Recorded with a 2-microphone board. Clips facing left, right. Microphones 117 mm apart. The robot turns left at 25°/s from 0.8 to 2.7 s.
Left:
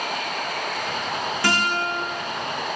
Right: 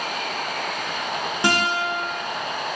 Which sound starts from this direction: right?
A guitar, at 1.4 s.